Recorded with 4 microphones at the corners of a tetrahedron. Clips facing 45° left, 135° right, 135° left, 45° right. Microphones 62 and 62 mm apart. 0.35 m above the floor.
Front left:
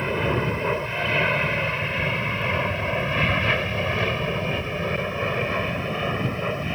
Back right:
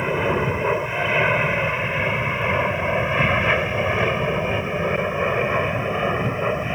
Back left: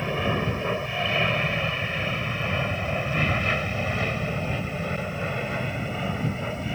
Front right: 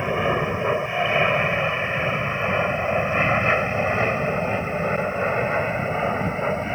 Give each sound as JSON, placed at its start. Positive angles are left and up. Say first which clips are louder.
{"t": 0.0, "sound": "an aircraft", "louder": "back right 3 dB, front right 4 dB", "azimuth_deg": -75}